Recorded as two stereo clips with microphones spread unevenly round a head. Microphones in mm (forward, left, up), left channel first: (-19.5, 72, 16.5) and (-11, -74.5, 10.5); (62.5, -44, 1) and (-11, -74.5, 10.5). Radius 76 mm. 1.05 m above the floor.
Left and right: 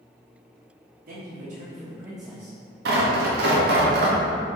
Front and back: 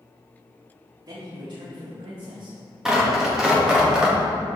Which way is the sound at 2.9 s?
75° right.